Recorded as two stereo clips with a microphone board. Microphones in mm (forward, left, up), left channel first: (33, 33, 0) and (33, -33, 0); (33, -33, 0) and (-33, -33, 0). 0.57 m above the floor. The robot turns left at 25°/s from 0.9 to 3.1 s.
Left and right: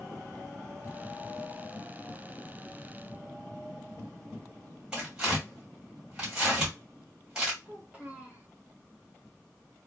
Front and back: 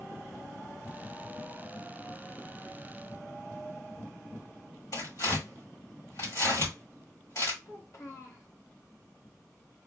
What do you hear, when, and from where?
4.9 s tearing paper: 15° right, 3 m
7.7 s a child speaking: 20° right, 1.7 m